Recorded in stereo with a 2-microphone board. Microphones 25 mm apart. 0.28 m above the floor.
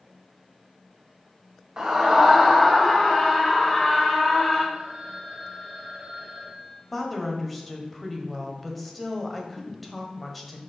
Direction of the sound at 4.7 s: 40° right (ahead or behind).